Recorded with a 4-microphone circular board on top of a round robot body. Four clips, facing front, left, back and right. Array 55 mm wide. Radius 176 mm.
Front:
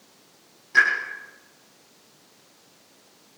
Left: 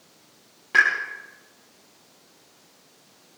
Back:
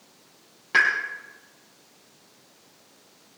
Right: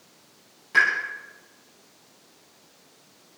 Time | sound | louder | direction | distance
0.7 | a pop | left 1 dB, front 1 dB | 150° left | 8.5 m